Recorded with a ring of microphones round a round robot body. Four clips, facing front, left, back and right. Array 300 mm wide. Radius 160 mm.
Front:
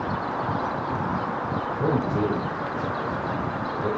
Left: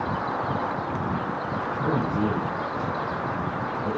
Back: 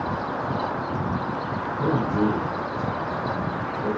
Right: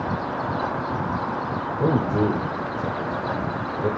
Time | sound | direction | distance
1.8 | a man speaking | 80° right | 3.5 m